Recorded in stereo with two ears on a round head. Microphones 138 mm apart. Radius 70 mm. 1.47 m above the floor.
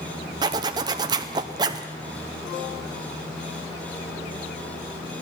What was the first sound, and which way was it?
A zipper, 25° right (ahead or behind).